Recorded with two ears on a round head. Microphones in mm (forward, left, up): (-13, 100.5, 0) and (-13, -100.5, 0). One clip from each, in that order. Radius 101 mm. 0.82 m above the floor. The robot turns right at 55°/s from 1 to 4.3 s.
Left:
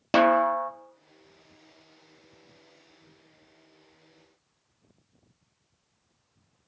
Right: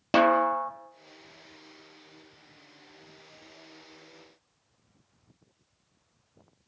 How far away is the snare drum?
About 0.6 m.